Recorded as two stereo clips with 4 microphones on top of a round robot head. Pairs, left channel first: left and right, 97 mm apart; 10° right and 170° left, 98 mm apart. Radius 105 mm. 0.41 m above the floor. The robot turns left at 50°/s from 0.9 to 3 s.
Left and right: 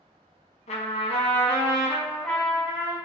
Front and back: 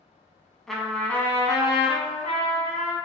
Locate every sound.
0.7 s a trumpet: 80° left, 1.1 m; by 3.0 s 25° right, 1.1 m